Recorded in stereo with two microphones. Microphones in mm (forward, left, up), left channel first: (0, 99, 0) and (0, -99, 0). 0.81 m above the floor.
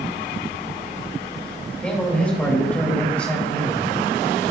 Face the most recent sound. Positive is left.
turn(degrees=5)  # may be behind; listen again after turning